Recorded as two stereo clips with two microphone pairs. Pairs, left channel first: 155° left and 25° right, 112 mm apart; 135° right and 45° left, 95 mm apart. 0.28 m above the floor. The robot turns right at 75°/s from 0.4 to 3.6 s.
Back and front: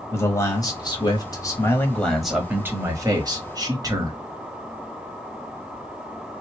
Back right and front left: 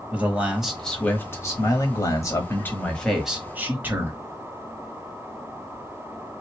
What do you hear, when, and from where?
0.1 s a man speaking: 110° left, 1.2 m; by 4.2 s 10° right, 1.2 m